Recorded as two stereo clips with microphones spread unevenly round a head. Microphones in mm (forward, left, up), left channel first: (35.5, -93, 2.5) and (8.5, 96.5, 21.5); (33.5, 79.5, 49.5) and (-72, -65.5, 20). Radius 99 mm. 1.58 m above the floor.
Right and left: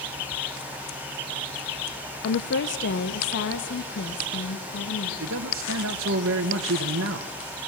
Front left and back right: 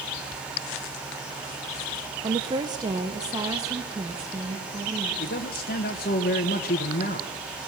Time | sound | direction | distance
2.2 | a woman speaking | 55° right | 0.8 m
5.2 | a man speaking | 90° left | 1.2 m